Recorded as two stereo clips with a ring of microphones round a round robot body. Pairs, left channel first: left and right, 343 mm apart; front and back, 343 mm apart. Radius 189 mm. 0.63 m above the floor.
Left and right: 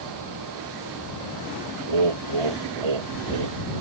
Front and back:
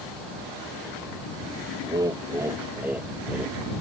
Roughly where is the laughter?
Right.